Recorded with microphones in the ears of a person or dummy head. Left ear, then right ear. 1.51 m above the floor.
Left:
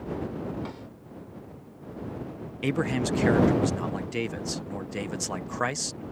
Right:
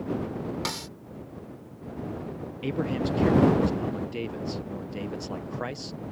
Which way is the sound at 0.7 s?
70° right (ahead or behind).